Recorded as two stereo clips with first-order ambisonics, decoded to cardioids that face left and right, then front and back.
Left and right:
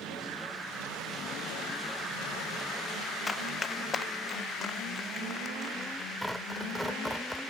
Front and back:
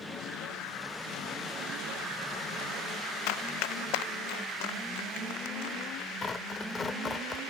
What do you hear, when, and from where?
3.3 s running footsteps: 15° left; by 6.1 s 25° left
6.2 s tearing paper: 5° right